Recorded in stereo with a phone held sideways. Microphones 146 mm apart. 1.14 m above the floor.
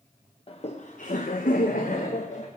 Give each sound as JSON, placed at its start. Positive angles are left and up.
{"t": 0.5, "sound": "laughter", "side_deg": 45, "distance_m": 0.9}